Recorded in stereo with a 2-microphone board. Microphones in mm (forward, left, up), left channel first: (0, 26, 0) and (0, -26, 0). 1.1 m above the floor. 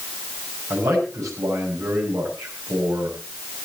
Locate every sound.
0.7 s a man speaking: 90° right, 6.5 m